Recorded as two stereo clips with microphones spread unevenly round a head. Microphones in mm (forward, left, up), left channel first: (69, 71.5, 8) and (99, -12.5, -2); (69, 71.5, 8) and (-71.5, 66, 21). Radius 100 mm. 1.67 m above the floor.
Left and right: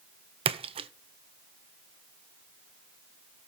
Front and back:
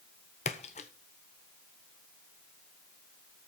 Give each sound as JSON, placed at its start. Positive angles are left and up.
{"t": 0.5, "sound": "a splash", "azimuth_deg": -60, "distance_m": 0.6}